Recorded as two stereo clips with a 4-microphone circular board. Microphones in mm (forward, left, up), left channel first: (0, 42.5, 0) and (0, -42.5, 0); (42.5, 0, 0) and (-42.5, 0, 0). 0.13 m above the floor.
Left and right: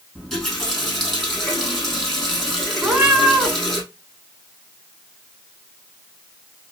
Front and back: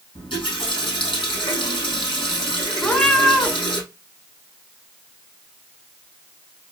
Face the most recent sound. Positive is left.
turn(degrees=-60)